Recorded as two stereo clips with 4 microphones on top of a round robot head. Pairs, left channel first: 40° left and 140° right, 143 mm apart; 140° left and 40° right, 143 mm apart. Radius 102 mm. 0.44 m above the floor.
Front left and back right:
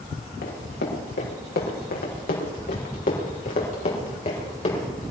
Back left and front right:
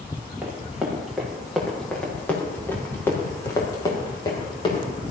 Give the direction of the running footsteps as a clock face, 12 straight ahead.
11 o'clock.